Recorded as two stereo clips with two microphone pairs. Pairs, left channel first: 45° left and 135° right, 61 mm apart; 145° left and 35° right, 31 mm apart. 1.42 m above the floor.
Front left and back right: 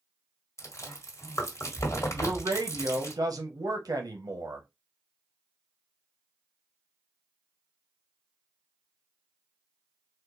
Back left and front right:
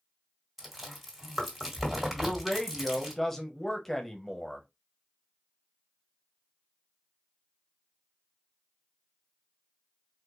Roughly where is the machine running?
I don't hear a machine running.